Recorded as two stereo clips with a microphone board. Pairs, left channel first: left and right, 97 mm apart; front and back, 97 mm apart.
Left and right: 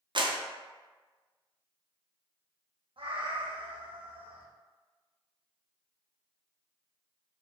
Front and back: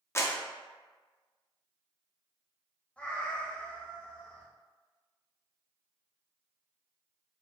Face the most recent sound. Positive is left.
turn(degrees=-75)